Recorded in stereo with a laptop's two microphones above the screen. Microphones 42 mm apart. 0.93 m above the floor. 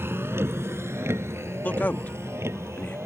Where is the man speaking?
45° left (ahead or behind).